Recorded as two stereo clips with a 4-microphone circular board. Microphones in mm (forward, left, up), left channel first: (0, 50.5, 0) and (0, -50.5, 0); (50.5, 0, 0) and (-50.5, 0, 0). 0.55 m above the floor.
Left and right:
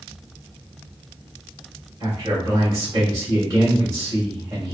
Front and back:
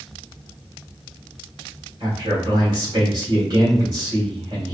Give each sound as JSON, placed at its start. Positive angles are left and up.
{"t": 2.0, "sound": "a man speaking", "azimuth_deg": -140, "distance_m": 1.8}